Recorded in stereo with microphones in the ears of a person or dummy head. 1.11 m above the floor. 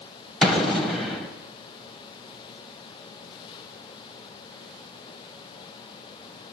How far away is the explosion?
About 0.9 m.